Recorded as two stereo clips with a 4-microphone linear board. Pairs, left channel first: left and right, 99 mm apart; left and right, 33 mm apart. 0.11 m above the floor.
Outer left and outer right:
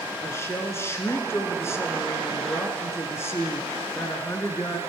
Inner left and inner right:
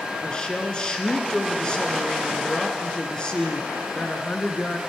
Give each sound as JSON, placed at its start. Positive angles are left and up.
{"t": 0.2, "sound": "a woman speaking", "side_deg": 25, "distance_m": 1.3}